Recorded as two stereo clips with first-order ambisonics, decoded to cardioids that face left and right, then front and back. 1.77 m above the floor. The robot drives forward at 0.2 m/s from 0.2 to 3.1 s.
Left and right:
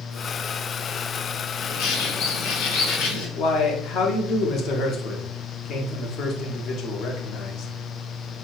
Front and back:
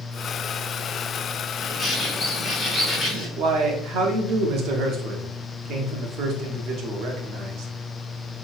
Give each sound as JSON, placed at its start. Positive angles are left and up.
{"t": 1.6, "sound": "a bird", "azimuth_deg": 85, "distance_m": 1.2}
{"t": 3.4, "sound": "a man speaking", "azimuth_deg": 140, "distance_m": 0.7}